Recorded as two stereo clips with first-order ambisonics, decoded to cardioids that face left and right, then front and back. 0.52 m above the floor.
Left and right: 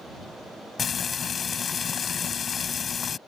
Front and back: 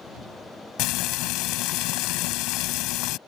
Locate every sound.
0.8 s frying: 25° left